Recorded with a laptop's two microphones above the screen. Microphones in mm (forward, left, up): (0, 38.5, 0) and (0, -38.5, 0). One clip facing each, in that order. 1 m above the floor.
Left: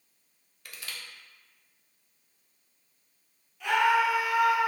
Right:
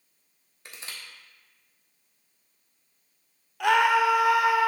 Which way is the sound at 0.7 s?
25° right (ahead or behind).